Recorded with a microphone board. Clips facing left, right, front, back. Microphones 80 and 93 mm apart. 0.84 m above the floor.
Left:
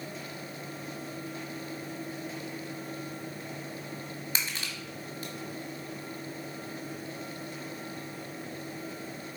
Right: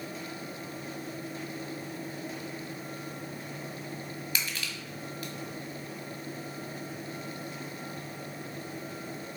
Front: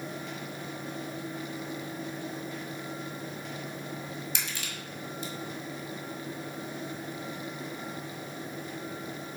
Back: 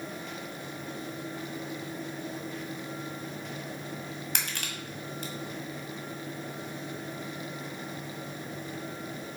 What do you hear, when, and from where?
4.3 s crushing: 150° left, 1.7 m